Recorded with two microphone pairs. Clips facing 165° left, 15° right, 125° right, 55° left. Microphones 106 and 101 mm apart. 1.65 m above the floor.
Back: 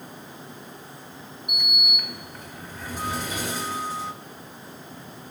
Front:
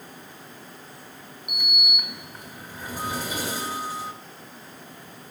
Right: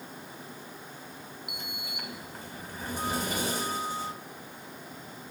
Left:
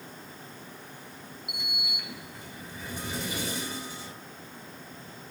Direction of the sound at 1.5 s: 95° right.